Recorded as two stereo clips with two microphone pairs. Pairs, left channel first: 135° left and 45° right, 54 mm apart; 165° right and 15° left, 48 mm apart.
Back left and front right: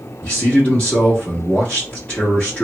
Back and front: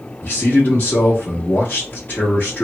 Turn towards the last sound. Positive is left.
turn(degrees=165)